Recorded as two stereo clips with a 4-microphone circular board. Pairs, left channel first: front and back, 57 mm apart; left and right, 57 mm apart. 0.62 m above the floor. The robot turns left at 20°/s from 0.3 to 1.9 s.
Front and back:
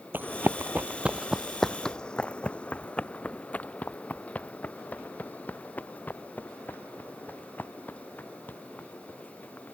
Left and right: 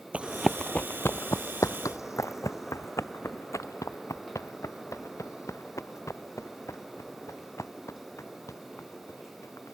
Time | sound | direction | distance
0.1 | running footsteps | 145° right | ?